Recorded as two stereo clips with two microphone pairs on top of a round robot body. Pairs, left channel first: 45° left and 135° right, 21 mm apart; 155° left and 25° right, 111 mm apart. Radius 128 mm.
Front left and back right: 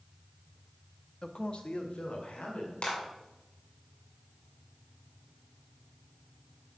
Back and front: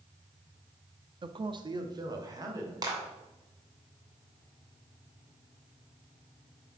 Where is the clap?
30° left, 3 m.